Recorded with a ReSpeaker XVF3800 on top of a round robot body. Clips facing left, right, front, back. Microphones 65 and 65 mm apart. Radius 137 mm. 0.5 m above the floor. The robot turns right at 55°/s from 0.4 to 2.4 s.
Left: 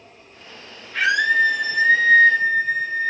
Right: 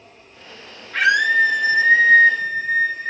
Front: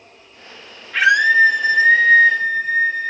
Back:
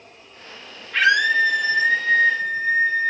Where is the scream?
85° right, 5 m; by 3.1 s 5° right, 5 m.